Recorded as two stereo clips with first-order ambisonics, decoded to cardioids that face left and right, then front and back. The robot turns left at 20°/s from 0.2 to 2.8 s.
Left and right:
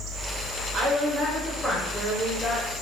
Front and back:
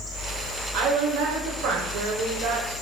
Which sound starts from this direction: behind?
A woman speaking, at 0.7 s.